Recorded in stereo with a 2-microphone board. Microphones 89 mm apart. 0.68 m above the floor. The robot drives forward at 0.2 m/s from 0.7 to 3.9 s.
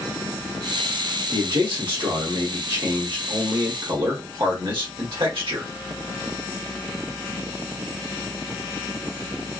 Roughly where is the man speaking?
Right.